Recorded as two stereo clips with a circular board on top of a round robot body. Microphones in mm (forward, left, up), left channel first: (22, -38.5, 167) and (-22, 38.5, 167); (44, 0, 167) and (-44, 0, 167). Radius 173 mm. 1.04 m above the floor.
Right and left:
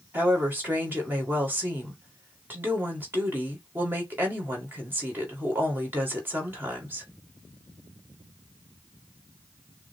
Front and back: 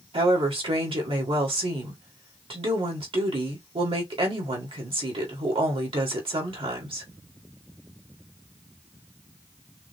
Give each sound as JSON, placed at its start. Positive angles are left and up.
{"t": 0.1, "sound": "a woman speaking", "azimuth_deg": -175, "distance_m": 2.5}